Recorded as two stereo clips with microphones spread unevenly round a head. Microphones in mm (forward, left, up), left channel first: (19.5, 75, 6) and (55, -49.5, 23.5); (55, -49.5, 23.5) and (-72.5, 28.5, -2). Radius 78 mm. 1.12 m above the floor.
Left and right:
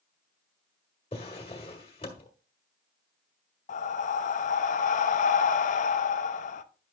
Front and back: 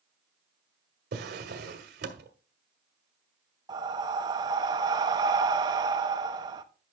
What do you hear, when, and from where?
1.1 s a drawer: 165° left, 1.4 m
3.7 s breathing: 80° left, 0.7 m